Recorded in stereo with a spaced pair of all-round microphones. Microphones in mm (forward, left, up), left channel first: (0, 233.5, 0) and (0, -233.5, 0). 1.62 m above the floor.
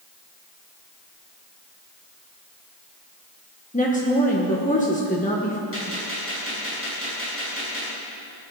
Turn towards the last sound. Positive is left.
turn(degrees=30)  # may be behind; listen again after turning